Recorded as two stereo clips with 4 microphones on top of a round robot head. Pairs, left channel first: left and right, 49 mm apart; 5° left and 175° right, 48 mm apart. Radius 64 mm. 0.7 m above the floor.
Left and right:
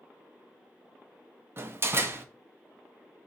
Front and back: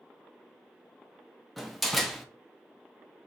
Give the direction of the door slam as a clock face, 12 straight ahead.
3 o'clock.